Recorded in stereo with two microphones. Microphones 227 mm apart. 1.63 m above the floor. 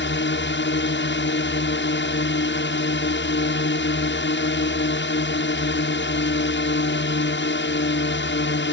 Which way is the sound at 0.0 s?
55° left (ahead or behind).